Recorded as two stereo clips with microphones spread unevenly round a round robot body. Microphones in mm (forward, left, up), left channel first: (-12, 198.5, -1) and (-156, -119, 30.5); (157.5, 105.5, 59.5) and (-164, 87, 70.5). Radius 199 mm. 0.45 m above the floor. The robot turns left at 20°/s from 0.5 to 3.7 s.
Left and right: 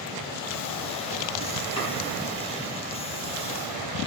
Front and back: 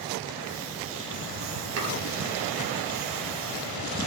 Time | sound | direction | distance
1.8 | chopping | 140° left | 7.5 m